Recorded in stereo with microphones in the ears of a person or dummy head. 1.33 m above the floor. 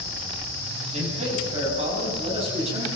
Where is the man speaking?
45° right (ahead or behind), 9.5 m; by 2.9 s 40° right (ahead or behind), 10.5 m.